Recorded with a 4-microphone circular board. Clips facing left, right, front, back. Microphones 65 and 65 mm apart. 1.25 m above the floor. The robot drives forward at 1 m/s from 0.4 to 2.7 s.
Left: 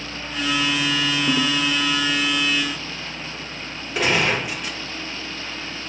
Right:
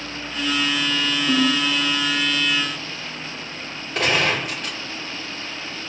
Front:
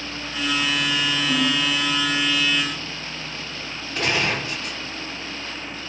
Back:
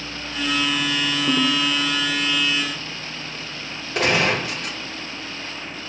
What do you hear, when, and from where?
1.3 s a ringtone: 140° left, 1.6 m; by 1.6 s 145° left, 1.9 m
4.0 s a gunshot: 170° left, 3.5 m